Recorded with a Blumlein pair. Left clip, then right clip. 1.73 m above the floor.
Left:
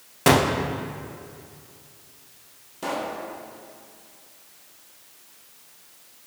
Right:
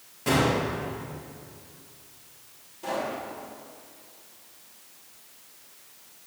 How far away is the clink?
I don't hear a clink.